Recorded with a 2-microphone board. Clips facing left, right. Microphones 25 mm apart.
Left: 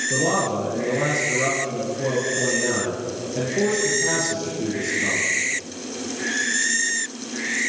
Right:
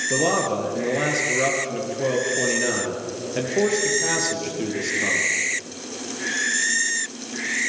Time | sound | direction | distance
0.1 | a man speaking | 35° right (ahead or behind) | 5.5 m